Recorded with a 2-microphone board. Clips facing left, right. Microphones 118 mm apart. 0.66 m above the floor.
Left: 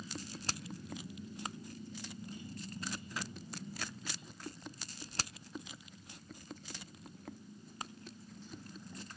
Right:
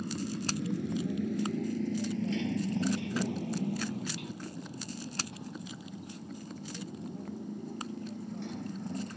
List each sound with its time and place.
0.0 s a motorcycle: 65° right (ahead or behind); by 9.2 s 70° right (ahead or behind)